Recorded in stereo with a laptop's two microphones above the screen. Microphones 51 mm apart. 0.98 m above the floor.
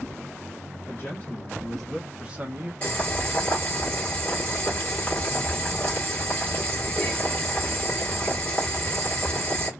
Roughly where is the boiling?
Left.